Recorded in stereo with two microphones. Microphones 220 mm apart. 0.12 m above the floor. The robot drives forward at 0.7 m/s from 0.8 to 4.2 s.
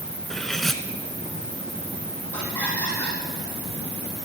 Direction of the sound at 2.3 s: 10° left (ahead or behind).